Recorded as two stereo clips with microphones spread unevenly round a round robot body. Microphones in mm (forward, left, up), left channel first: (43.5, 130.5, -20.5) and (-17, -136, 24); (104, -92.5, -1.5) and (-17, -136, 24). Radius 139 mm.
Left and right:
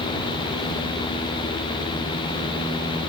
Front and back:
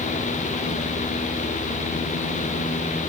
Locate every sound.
Only background noise.